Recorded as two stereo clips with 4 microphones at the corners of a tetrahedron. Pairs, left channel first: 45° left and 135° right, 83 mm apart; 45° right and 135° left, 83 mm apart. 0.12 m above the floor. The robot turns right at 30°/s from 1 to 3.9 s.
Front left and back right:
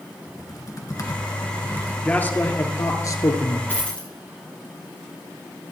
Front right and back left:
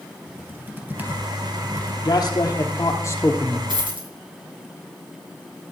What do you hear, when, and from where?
0.3 s typing on a keyboard: 75° left, 2 m; by 1.9 s 105° left, 2 m
2.0 s a man speaking: 25° right, 2 m; by 3.6 s 20° left, 2 m
3.7 s a dropped coin: 115° left, 4.5 m; by 4.1 s 120° left, 4.5 m